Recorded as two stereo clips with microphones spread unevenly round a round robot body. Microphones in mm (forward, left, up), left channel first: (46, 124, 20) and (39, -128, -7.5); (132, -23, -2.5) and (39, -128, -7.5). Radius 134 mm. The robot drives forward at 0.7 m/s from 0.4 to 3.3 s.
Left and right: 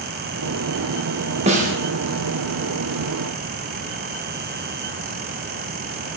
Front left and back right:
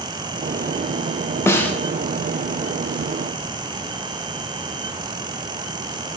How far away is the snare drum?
About 0.7 m.